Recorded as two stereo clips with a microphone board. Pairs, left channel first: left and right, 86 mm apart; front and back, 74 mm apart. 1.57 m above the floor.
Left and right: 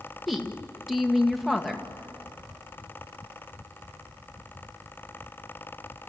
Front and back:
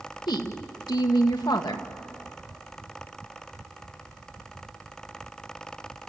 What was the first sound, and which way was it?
A woman speaking, straight ahead.